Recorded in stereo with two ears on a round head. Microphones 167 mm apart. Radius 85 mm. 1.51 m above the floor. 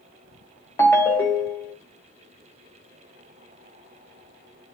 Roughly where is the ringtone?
Centre.